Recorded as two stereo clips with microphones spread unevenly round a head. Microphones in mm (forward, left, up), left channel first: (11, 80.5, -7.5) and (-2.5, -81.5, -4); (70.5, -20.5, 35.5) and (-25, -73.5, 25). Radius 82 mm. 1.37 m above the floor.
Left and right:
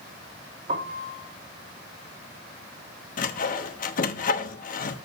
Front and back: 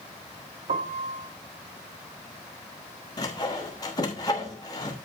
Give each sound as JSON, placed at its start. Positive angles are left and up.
{"t": 0.7, "sound": "a piano", "azimuth_deg": -145, "distance_m": 1.4}
{"t": 3.2, "sound": "sawing", "azimuth_deg": 85, "distance_m": 0.9}